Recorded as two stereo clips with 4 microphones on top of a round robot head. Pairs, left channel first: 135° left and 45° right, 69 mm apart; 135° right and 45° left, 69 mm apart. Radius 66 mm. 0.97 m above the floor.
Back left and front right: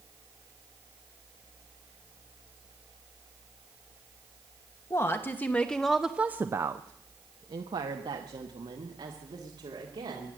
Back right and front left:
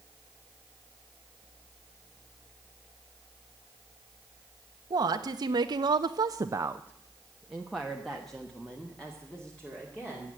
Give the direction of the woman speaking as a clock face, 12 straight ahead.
9 o'clock.